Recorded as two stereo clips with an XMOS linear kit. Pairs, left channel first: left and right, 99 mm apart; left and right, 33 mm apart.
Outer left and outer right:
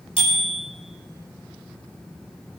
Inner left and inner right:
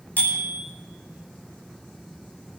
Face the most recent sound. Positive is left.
turn(degrees=70)  # may be behind; listen again after turning